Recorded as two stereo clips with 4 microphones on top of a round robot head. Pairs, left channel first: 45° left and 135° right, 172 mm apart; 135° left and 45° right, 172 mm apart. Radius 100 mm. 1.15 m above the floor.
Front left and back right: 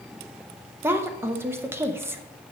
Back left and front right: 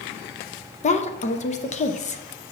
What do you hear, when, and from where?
0.8 s a woman speaking: 150° left, 0.8 m